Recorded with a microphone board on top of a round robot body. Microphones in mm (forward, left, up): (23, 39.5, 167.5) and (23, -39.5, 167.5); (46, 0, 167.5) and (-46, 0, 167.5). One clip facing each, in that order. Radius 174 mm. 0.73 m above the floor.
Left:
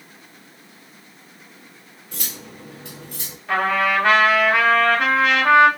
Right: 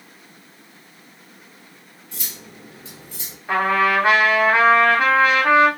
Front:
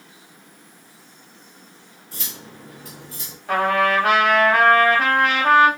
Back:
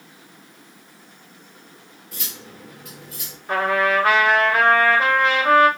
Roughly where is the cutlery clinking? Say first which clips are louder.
Left 3 dB, front 1 dB; ahead left.